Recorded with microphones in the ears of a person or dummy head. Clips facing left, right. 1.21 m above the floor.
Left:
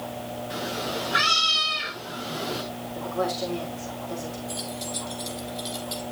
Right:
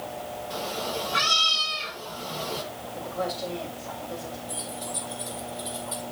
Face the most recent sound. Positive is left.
turn(degrees=65)  # may be behind; listen again after turning